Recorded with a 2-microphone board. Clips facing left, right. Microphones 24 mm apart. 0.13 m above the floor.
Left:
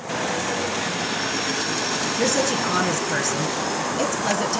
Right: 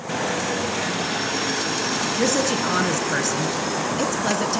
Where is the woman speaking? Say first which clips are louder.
Even; 5° right (ahead or behind), 1.3 m.